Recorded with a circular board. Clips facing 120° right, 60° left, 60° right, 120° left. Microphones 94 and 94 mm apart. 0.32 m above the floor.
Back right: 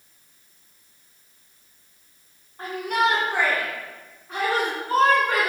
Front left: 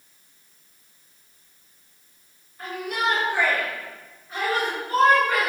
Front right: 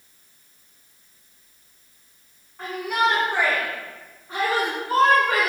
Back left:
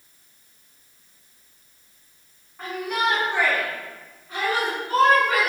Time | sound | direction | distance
2.6 | a shout | 150° right | 2.5 m